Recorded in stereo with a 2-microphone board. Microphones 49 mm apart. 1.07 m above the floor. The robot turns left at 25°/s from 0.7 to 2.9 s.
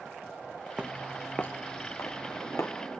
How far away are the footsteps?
About 1.2 m.